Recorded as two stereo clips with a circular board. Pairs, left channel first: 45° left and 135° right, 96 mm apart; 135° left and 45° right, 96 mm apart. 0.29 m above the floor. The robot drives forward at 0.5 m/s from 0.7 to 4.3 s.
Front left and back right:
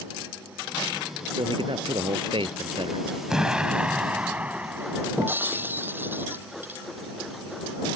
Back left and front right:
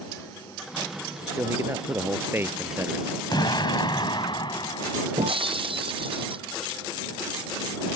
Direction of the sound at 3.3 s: 145° left.